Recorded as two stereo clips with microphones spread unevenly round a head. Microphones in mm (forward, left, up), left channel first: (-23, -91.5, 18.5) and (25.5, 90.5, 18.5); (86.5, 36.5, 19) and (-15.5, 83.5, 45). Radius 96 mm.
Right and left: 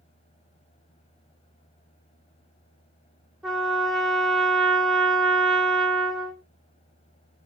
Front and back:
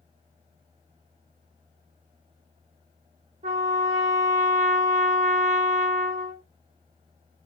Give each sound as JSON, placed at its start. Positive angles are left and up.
{"t": 3.4, "sound": "a trumpet", "azimuth_deg": 165, "distance_m": 1.7}